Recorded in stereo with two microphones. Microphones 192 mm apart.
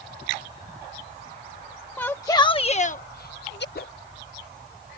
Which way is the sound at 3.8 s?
55° left (ahead or behind).